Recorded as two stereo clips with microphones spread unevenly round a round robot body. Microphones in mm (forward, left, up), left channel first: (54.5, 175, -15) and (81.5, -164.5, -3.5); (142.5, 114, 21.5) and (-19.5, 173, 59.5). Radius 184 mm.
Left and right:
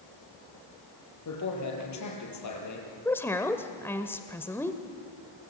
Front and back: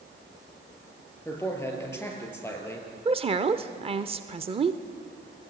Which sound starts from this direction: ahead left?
A man speaking, at 1.2 s.